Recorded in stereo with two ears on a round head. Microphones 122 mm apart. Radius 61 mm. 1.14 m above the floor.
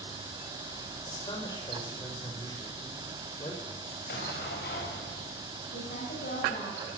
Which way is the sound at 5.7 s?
65° left (ahead or behind).